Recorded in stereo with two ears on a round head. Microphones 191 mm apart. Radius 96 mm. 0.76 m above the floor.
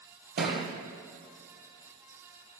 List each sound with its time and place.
0.4 s a thud: 40° right (ahead or behind), 2.5 m